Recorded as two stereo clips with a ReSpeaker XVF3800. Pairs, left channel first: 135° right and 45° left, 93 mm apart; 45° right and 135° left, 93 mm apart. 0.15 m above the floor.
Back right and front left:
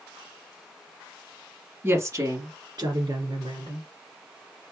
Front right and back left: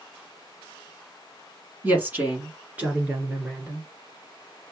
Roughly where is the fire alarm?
No fire alarm in this recording.